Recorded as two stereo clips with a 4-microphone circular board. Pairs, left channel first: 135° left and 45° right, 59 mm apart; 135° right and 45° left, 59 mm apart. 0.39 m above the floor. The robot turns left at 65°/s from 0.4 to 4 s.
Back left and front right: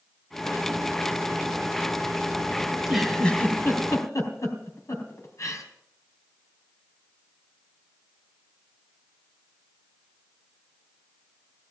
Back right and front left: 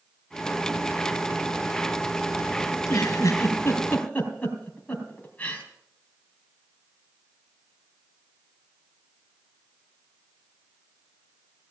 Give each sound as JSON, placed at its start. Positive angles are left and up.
{"t": 2.7, "sound": "a giggle", "azimuth_deg": -115, "distance_m": 3.5}